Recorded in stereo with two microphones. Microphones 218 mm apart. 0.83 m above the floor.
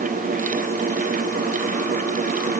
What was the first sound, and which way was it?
Only background noise.